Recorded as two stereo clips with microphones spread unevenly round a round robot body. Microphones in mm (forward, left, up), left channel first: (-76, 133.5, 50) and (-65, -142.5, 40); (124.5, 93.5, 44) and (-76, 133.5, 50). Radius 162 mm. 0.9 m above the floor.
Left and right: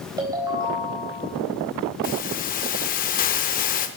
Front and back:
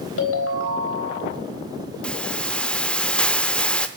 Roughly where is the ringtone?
Ahead.